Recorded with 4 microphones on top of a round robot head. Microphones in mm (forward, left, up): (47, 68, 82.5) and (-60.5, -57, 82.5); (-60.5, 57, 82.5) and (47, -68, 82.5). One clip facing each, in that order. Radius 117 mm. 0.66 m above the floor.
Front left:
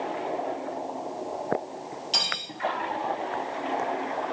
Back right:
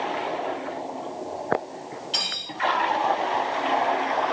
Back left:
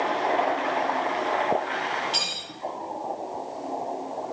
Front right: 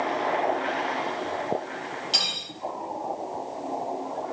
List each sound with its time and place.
2.1 s cutlery clinking: straight ahead, 1.8 m